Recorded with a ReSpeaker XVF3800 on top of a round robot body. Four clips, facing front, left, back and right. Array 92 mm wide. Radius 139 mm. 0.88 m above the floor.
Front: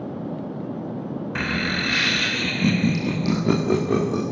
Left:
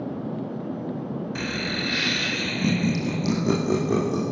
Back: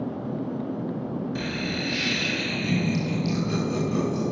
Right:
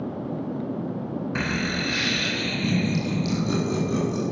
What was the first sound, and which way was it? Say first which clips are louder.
Laughter: right 4 dB, front 4 dB; 35° right.